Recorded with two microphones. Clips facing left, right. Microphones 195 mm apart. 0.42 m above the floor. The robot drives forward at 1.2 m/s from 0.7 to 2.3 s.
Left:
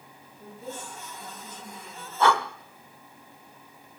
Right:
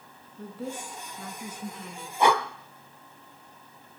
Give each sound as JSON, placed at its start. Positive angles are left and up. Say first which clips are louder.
{"t": 0.4, "sound": "a woman speaking", "louder": "right 4 dB", "side_deg": -80, "distance_m": 3.5}
{"t": 2.2, "sound": "breathing", "louder": "even", "side_deg": -15, "distance_m": 1.0}